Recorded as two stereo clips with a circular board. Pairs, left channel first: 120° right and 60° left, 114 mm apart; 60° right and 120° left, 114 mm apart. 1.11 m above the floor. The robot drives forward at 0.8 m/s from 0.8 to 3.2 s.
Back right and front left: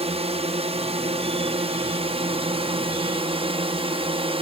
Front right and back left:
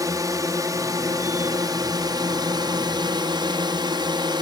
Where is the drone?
65° left; by 4.4 s 75° left.